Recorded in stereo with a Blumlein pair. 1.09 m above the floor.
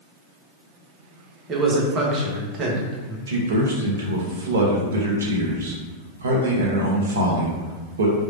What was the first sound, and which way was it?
A man speaking, 30° right.